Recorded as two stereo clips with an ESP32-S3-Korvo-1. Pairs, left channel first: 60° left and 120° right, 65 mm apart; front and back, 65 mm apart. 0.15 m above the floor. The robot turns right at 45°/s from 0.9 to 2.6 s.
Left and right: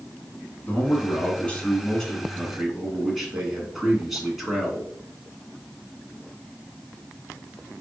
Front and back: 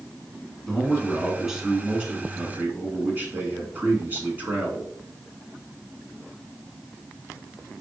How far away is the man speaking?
About 1.5 m.